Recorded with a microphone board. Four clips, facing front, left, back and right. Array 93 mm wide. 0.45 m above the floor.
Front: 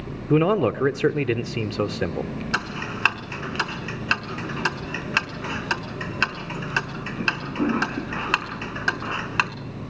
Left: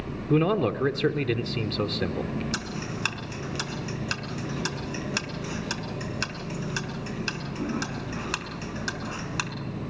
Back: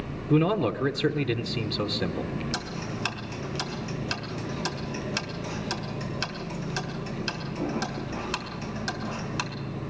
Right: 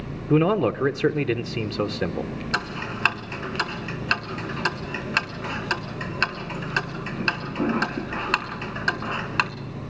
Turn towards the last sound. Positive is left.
turn(degrees=-40)